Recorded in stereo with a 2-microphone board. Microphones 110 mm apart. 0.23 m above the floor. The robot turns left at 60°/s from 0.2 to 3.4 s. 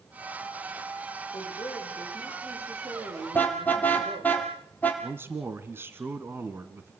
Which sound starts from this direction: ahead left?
A woman speaking, at 1.3 s.